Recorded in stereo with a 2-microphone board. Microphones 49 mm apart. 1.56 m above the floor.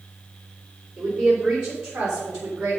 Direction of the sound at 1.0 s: 10° right (ahead or behind).